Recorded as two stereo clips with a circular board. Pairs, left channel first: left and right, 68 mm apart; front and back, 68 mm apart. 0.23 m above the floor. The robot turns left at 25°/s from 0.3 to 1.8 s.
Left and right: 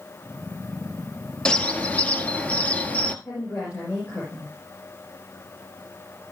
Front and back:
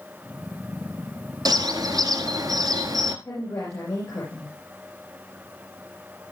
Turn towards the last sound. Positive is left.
turn(degrees=40)